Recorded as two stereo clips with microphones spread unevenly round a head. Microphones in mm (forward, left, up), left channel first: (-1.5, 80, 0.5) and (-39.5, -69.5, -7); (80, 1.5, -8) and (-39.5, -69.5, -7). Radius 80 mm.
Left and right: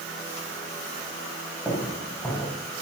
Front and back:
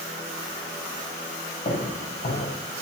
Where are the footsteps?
Straight ahead, 5.5 m.